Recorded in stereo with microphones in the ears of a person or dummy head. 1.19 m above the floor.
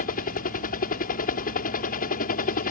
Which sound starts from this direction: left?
A helicopter, at 0.0 s.